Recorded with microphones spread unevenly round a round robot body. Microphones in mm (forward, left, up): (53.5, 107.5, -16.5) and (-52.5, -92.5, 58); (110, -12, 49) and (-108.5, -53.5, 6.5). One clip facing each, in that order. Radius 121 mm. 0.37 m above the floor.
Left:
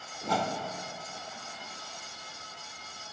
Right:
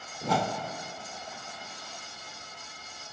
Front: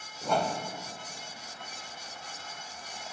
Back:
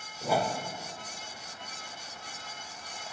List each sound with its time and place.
0.2 s a whoosh: 95° right, 0.6 m